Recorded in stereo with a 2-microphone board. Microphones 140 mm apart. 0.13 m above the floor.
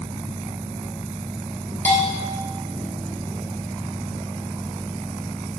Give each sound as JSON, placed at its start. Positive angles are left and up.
{"t": 1.9, "sound": "a bell", "side_deg": 10, "distance_m": 0.8}